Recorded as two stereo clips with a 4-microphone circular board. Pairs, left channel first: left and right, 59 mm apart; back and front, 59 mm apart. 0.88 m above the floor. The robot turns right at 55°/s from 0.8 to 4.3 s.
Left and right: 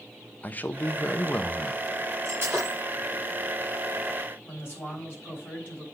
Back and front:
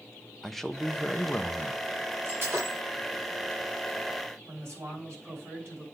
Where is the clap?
No clap in this recording.